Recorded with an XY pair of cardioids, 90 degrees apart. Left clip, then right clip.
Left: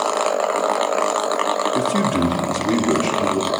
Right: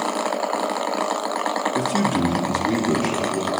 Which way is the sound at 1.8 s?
20° left.